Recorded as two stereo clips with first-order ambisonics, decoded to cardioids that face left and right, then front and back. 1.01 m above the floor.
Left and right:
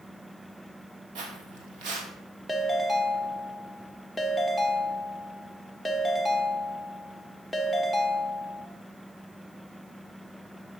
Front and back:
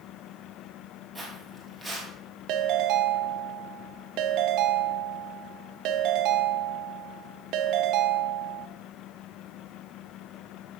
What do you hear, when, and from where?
1.1 s footsteps: 80° right, 2 m
2.5 s a ringtone: 170° left, 0.7 m